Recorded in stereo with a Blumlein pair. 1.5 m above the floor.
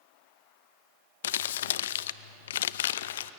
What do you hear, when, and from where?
1.2 s crumpling: 60° left, 0.6 m